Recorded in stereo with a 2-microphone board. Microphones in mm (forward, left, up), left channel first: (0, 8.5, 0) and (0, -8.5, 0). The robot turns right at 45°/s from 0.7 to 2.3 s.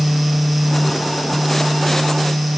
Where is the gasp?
No gasp in this recording.